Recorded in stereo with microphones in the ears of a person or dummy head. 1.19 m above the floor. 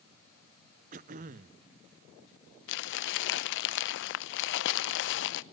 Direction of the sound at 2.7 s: 65° left (ahead or behind).